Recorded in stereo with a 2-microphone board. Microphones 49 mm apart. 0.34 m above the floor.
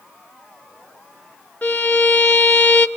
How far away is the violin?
About 1.0 m.